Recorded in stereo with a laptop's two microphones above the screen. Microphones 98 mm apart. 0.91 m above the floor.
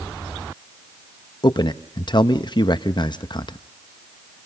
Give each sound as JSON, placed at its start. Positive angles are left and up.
{"t": 1.4, "sound": "a man speaking", "side_deg": 50, "distance_m": 0.7}